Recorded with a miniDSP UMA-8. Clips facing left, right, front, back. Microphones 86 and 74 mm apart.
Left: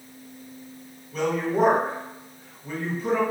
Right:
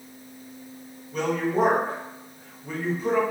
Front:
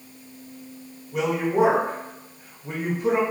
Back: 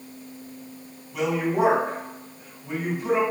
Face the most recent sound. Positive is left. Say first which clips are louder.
# even, front 2 dB
turn(degrees=-5)